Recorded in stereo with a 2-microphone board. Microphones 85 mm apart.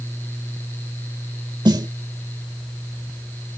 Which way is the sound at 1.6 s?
55° right (ahead or behind).